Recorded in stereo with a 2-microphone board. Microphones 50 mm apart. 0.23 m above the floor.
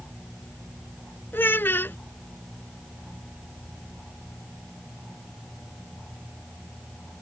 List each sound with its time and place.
1.3 s a child speaking: 45° left (ahead or behind)